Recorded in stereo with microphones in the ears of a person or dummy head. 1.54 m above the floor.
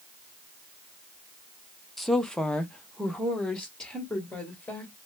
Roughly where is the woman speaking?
Centre.